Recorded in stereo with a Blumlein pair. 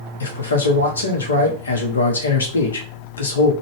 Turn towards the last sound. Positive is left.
turn(degrees=65)